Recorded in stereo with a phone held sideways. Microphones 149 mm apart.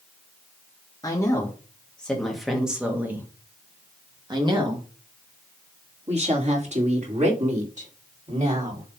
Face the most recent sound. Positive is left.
turn(degrees=-65)  # may be behind; listen again after turning